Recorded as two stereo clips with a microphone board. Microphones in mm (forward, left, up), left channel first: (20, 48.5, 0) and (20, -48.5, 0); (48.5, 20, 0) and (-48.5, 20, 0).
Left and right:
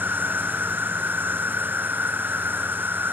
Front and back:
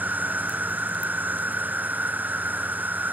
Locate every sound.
0.0 s an insect: 130° right